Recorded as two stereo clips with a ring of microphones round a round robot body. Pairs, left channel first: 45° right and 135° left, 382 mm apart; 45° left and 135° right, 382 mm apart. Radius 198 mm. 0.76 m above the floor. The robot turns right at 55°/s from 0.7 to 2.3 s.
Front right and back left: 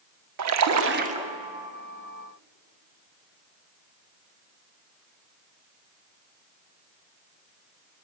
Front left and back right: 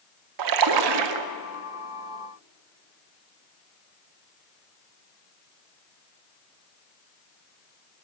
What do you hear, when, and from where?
0.4 s a splash: 175° right, 1.0 m; by 1.3 s 140° right, 1.0 m